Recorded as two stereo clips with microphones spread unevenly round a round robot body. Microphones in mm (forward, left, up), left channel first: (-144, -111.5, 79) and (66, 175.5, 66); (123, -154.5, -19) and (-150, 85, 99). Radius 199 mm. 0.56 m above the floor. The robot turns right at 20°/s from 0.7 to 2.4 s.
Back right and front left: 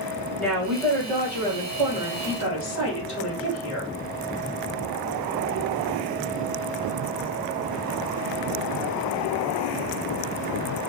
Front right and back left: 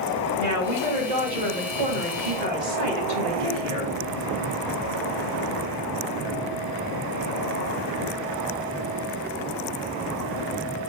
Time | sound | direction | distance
0.4 | a woman speaking | 145° left | 2.5 m